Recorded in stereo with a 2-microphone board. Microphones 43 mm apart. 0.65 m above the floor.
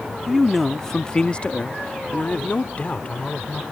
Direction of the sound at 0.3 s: Centre (ahead or behind).